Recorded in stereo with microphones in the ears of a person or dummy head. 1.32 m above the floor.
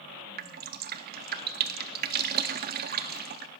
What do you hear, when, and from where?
0.4 s dripping: 50° right (ahead or behind), 0.5 m